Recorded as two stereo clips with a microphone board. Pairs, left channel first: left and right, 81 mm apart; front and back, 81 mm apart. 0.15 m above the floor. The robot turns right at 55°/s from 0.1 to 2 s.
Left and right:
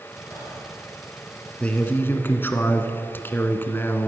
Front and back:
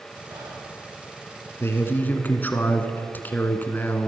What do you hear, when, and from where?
0.3 s whispering: 140° left, 6 m; by 0.6 s 160° left, 6 m
1.6 s a man speaking: 30° left, 1.4 m; by 4.1 s 50° left, 1.4 m